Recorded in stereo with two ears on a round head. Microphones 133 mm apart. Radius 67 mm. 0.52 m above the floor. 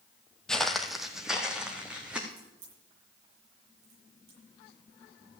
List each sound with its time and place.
0.5 s footsteps: 5° left (ahead or behind), 0.9 m; by 2.2 s 5° right (ahead or behind), 2.5 m
2.3 s a crack: 75° right (ahead or behind), 9 m